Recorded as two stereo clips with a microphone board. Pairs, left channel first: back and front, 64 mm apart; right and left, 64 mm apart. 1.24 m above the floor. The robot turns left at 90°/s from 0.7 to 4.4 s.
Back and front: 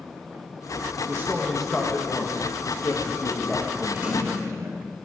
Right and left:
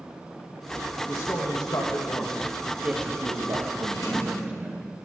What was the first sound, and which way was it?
A man speaking, 40° right.